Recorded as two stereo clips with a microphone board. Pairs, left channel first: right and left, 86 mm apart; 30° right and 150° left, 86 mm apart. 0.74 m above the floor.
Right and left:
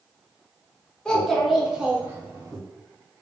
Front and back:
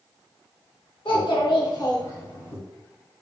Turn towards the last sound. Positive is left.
turn(degrees=35)